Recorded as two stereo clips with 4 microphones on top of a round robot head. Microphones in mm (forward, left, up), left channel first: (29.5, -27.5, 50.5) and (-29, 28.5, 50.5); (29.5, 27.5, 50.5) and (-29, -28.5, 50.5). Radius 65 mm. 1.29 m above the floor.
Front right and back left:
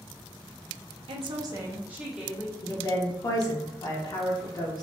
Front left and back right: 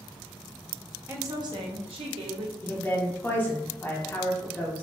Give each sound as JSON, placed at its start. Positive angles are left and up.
{"t": 1.1, "sound": "a woman speaking", "azimuth_deg": 160, "distance_m": 0.5}
{"t": 2.6, "sound": "a woman speaking", "azimuth_deg": -20, "distance_m": 0.6}